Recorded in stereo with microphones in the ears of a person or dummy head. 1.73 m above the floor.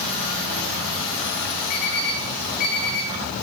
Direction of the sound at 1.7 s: 40° left (ahead or behind).